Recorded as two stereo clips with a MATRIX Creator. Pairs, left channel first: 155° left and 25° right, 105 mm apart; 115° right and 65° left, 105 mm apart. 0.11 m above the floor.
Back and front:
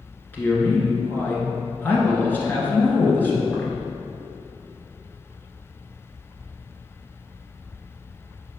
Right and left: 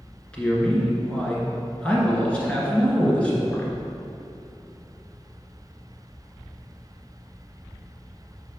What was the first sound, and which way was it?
A man speaking, 170° right.